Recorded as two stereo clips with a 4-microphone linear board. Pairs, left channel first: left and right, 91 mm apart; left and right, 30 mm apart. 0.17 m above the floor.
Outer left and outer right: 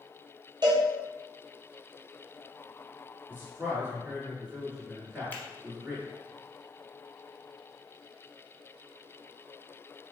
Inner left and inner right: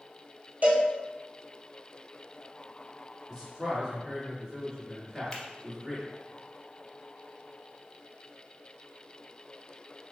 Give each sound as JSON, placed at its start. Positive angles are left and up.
{"t": 0.6, "sound": "a cowbell", "side_deg": -50, "distance_m": 1.1}
{"t": 3.3, "sound": "a man speaking", "side_deg": -20, "distance_m": 1.8}
{"t": 5.3, "sound": "a finger snap", "side_deg": 20, "distance_m": 0.9}